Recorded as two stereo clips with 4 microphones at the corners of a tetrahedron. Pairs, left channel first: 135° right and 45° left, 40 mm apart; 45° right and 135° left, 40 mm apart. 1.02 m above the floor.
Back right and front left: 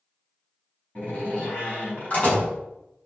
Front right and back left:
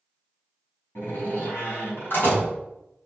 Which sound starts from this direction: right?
A door slam, at 0.9 s.